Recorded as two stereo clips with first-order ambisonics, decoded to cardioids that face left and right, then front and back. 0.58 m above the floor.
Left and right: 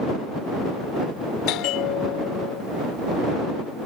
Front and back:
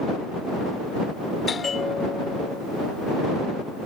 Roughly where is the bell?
Left.